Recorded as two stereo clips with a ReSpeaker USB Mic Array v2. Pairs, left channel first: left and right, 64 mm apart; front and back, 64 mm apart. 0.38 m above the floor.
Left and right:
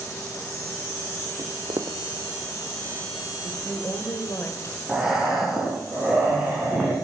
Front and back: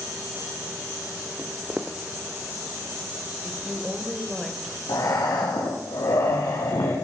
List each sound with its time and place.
1.4 s footsteps: 95° right, 0.9 m
3.4 s a woman speaking: 105° left, 1.8 m
4.9 s breathing: 10° right, 4 m